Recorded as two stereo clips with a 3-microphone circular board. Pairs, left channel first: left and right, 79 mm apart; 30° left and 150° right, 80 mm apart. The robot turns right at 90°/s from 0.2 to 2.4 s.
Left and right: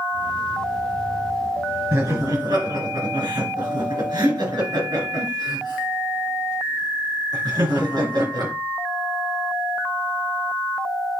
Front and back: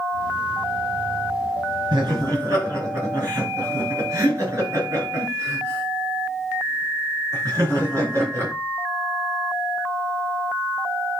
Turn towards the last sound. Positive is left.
turn(degrees=-95)